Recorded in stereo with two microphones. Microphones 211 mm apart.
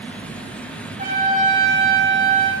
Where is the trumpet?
40° right (ahead or behind), 3 m.